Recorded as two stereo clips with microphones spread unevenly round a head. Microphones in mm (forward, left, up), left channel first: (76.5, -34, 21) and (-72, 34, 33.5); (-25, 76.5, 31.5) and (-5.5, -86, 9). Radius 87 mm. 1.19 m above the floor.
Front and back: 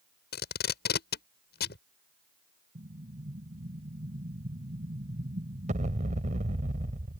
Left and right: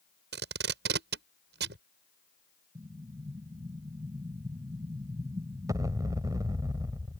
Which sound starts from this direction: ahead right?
Tape being pulled, at 0.3 s.